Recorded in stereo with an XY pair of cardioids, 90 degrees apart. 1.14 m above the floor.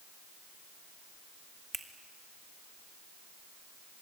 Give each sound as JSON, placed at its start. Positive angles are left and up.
{"t": 1.7, "sound": "a finger snap", "azimuth_deg": -25, "distance_m": 2.5}